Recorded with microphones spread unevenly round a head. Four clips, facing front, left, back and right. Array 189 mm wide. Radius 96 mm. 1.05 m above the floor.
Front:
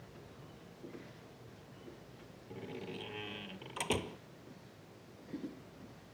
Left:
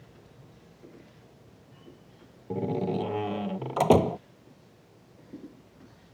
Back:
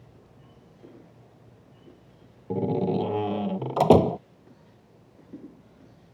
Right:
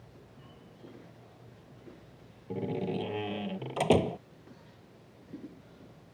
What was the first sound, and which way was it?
A door slam, 165° left.